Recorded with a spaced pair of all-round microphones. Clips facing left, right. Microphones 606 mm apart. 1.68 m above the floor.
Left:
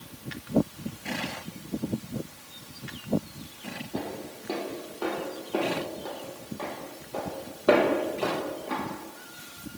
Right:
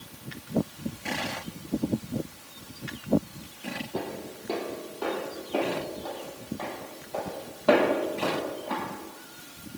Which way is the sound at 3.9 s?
10° left (ahead or behind).